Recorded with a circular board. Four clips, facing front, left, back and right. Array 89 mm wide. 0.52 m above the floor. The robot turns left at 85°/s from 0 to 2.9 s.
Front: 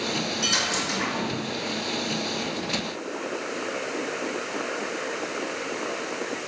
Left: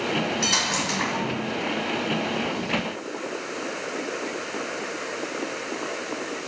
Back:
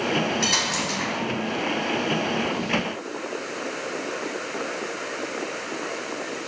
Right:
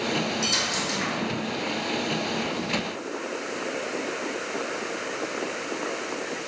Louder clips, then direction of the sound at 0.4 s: Left 2 dB, back 2 dB; 150° left.